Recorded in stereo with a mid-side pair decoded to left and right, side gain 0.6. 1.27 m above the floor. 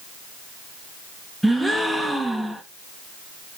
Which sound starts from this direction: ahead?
A gasp, at 1.4 s.